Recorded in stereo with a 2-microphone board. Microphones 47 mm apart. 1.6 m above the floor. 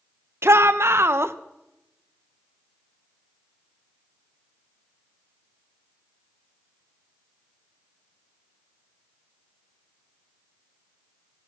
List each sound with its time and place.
0.4 s a shout: 65° right (ahead or behind), 0.9 m